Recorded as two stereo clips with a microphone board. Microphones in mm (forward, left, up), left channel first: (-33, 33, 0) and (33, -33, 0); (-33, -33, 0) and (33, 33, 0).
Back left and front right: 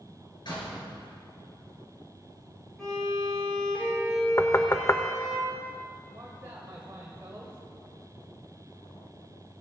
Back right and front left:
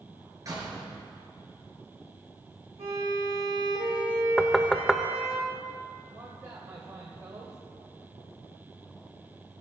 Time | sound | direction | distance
0.5 | a door slam | 100° left | 4 m
2.8 | a violin | 50° left | 4 m
4.4 | knocking | 145° left | 0.6 m
6.1 | a man speaking | 10° left | 1.5 m